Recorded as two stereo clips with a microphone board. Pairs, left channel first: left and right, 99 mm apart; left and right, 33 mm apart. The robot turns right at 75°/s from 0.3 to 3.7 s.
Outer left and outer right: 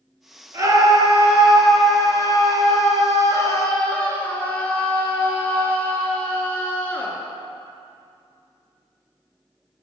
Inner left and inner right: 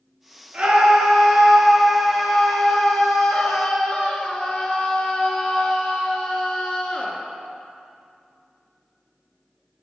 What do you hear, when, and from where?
0.5 s a scream: 75° right, 1.8 m; by 7.1 s 160° left, 1.8 m